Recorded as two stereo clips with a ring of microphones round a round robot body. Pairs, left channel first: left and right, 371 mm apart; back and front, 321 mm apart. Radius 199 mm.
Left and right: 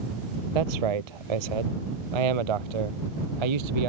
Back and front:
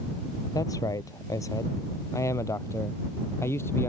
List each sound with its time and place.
0.6 s a man speaking: 100° right; by 3.9 s 95° right